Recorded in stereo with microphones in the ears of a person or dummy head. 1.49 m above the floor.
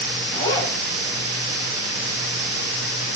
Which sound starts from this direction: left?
A zipper, at 0.3 s.